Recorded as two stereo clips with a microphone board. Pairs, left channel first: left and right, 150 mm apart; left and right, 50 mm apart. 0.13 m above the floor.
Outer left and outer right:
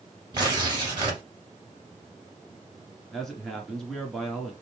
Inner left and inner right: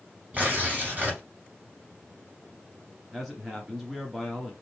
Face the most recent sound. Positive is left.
turn(degrees=0)  # may be behind; listen again after turning